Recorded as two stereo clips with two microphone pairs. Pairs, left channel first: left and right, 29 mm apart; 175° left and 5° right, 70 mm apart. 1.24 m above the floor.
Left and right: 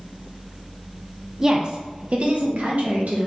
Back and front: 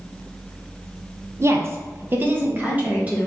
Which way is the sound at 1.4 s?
25° right.